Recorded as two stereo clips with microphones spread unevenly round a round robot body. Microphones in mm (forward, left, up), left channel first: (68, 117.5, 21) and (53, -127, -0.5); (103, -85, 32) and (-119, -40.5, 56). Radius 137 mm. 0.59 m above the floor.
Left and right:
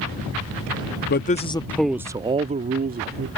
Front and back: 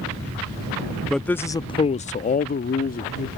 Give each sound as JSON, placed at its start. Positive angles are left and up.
{"t": 1.1, "sound": "a man speaking", "azimuth_deg": 70}